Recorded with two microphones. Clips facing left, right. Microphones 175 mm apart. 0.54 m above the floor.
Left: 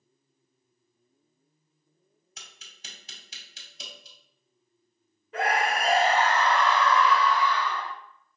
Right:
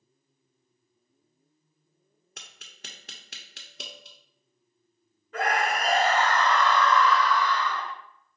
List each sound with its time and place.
2.4 s tapping: 65° right (ahead or behind), 0.8 m
5.3 s a scream: 10° left (ahead or behind), 1.0 m